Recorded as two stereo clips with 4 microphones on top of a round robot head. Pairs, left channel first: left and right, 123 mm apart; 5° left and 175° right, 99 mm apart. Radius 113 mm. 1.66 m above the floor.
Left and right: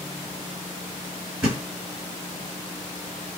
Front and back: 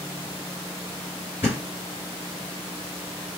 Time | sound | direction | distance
1.4 | a thud | 20° right | 1.9 m